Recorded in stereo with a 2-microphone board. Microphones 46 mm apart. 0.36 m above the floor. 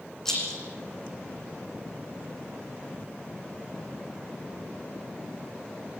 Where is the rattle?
10° left (ahead or behind), 9 m.